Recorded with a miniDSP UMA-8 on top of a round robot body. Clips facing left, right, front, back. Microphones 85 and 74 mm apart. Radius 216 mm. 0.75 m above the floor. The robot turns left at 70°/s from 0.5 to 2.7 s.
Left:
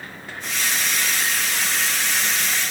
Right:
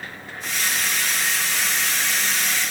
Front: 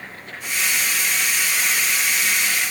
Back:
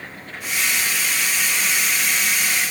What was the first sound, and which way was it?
Only background noise.